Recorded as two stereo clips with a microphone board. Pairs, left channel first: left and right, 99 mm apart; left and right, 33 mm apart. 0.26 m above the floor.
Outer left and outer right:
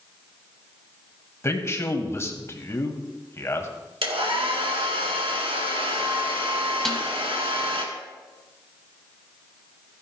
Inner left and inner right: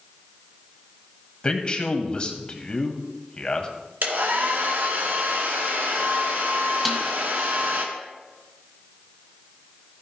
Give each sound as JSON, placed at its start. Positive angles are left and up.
{"t": 1.4, "sound": "a man speaking", "side_deg": 30, "distance_m": 1.3}
{"t": 4.0, "sound": "a hair dryer", "side_deg": -70, "distance_m": 1.9}
{"t": 6.8, "sound": "a snare drum", "side_deg": 5, "distance_m": 1.6}